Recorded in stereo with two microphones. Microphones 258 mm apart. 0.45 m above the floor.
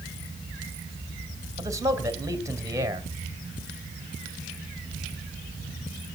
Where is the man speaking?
10° right (ahead or behind), 2.5 m.